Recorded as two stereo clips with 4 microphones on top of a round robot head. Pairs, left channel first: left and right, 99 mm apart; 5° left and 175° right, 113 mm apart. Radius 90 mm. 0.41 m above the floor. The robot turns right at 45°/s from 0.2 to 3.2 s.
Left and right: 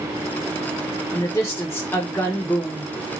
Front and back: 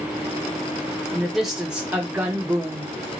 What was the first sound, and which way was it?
A woman speaking, 85° left.